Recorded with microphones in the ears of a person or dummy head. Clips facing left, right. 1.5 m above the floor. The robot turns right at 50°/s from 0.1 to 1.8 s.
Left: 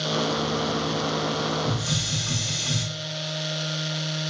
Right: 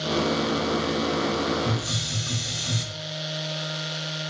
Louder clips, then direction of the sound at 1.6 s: Even; 35° left (ahead or behind).